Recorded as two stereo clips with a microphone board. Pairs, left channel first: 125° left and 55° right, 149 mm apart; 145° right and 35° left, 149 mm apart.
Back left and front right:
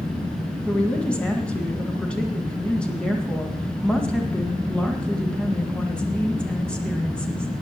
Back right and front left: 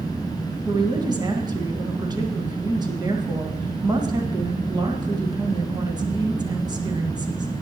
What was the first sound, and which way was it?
A woman speaking, 50° left.